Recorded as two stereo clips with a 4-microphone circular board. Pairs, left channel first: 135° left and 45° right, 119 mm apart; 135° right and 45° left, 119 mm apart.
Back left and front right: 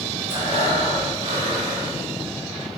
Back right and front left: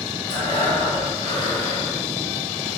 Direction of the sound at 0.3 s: 90° right.